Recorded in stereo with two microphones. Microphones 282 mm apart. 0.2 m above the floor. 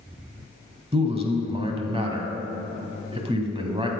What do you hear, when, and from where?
0.9 s a man speaking: 20° right (ahead or behind), 1.1 m